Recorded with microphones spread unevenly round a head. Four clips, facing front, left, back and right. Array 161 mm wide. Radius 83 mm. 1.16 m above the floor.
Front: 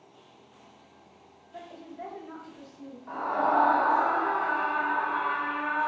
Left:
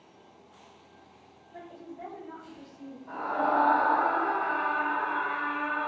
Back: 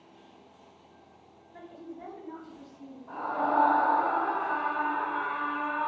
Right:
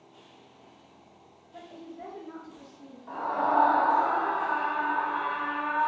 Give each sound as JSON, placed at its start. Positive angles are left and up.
{"t": 1.5, "sound": "a woman speaking", "azimuth_deg": 20, "distance_m": 1.8}
{"t": 3.1, "sound": "a scream", "azimuth_deg": 15, "distance_m": 0.9}